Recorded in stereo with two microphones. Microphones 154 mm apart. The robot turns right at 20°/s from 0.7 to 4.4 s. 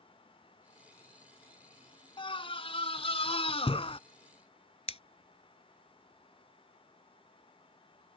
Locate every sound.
2.2 s a scream: 65° left; by 4.0 s 100° left
4.9 s scissors: 40° left (ahead or behind)